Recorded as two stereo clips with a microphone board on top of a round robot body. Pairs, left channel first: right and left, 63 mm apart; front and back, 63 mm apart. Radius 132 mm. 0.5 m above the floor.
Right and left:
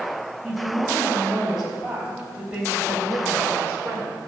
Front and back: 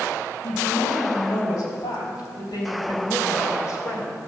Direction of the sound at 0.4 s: Straight ahead.